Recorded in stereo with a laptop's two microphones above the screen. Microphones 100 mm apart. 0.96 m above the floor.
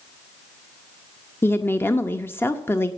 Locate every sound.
1.4 s a woman speaking: 25° left (ahead or behind), 0.8 m